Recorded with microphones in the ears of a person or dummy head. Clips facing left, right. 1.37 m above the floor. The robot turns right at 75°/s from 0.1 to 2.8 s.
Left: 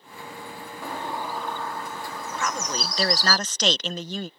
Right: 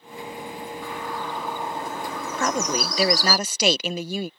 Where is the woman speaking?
45° right; by 4.3 s 15° right.